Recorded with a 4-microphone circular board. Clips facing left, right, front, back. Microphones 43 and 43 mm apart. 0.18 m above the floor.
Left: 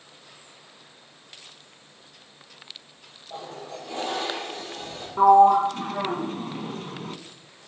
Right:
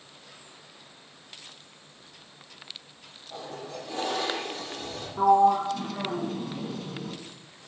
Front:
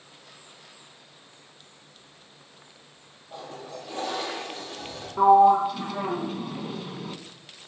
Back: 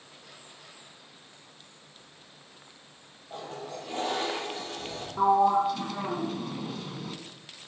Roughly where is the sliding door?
Left.